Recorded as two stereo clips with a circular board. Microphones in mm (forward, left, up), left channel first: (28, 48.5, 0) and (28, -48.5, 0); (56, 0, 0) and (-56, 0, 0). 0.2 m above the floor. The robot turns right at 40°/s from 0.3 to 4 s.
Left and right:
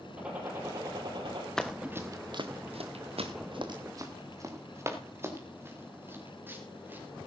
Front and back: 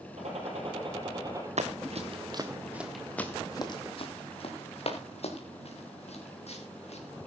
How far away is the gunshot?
About 5.5 m.